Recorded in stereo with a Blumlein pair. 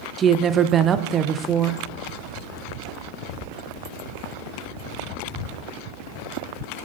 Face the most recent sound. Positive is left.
turn(degrees=-25)